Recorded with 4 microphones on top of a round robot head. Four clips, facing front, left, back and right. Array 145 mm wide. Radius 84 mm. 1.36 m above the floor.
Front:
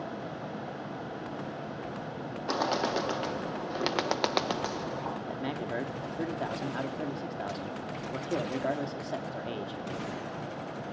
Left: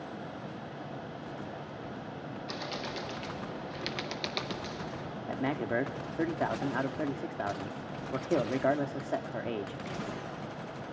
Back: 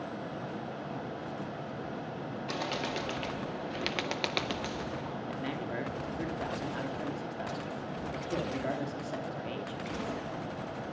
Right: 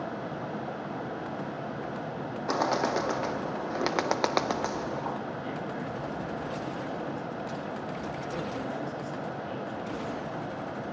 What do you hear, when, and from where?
2.5 s a bird: 60° right, 0.8 m
5.3 s a man speaking: 70° left, 3 m